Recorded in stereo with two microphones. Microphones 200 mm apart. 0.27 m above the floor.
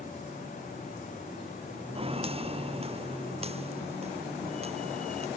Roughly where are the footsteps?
Right.